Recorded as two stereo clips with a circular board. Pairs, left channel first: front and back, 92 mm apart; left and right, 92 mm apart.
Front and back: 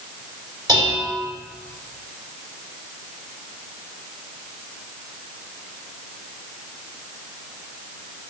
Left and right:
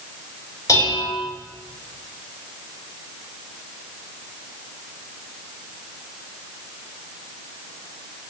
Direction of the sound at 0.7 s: 145° left.